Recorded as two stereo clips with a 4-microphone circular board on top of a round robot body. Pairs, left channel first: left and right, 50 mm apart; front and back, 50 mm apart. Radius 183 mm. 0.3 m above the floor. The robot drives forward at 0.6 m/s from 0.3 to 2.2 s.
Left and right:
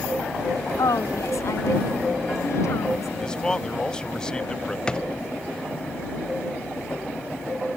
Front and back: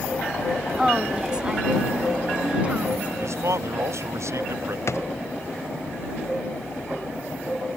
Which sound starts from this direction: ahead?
A drawer, at 4.9 s.